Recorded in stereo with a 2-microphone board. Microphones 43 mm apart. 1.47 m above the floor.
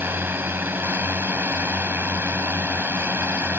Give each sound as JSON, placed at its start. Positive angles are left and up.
{"t": 0.0, "sound": "a drone", "side_deg": -55}